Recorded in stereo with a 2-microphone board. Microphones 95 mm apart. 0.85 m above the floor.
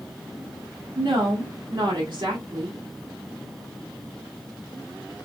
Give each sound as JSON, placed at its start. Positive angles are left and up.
{"t": 0.9, "sound": "a woman speaking", "side_deg": -55, "distance_m": 2.0}